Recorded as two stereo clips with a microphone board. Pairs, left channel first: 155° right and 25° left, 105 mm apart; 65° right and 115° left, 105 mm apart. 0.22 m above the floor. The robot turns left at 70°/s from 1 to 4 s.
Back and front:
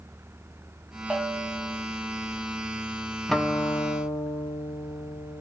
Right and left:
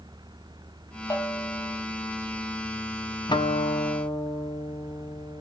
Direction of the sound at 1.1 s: 65° right.